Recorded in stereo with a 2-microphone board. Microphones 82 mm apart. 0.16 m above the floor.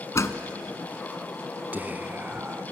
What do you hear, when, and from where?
0.1 s a door slam: 35° left (ahead or behind), 1.2 m
1.7 s whispering: 20° right (ahead or behind), 1.3 m